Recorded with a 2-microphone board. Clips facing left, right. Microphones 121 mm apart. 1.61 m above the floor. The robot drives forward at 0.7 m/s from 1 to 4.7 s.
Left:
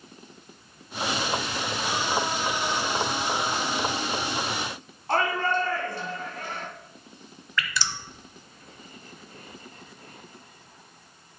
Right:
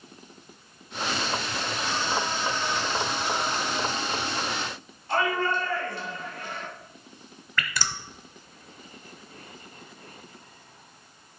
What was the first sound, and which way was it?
A shout, 45° left (ahead or behind).